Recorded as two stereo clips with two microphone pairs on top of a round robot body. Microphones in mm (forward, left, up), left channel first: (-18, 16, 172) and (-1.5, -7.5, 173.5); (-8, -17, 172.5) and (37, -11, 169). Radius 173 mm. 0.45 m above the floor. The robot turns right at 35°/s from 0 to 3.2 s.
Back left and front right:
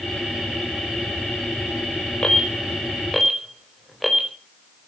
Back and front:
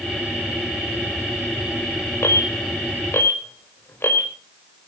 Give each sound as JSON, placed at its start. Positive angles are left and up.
{"t": 2.2, "sound": "an alarm", "azimuth_deg": 180, "distance_m": 4.5}